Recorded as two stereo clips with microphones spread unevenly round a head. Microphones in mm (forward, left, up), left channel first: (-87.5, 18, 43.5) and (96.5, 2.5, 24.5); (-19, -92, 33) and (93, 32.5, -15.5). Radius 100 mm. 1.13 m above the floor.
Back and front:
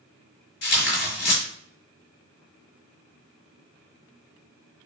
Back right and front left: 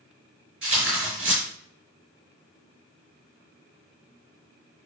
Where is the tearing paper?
135° left, 5.5 m.